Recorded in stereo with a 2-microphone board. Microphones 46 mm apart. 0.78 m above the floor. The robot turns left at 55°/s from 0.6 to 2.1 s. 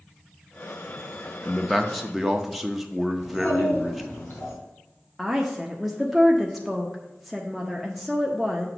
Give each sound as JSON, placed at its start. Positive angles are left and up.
{"t": 1.4, "sound": "a man speaking", "side_deg": 10, "distance_m": 0.5}
{"t": 3.2, "sound": "a child speaking", "side_deg": 55, "distance_m": 2.5}
{"t": 5.2, "sound": "a woman speaking", "side_deg": 0, "distance_m": 0.6}